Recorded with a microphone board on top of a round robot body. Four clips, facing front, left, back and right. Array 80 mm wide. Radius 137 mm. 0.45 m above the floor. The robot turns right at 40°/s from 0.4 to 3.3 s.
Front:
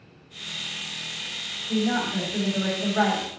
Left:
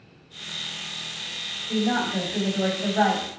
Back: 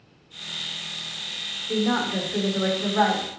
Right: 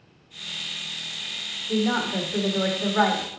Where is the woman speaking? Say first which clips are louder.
Even, back 1 dB; 130° right, 1.5 m; by 3.4 s 65° right, 1.5 m.